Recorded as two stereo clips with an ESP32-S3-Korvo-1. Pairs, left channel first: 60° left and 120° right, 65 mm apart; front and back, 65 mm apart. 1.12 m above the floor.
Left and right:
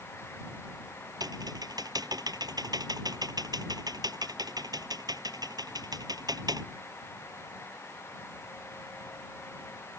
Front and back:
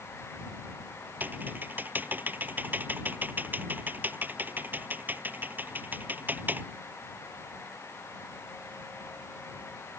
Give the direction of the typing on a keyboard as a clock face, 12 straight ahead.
4 o'clock.